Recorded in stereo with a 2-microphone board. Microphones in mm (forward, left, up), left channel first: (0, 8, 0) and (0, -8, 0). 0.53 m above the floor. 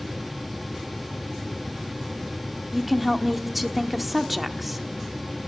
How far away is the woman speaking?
About 1.1 m.